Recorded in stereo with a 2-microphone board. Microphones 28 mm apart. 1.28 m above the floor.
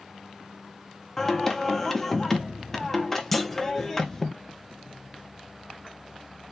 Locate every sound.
1.2 s singing: 10° left (ahead or behind), 1.0 m
3.3 s a clunk: 5° left (ahead or behind), 0.8 m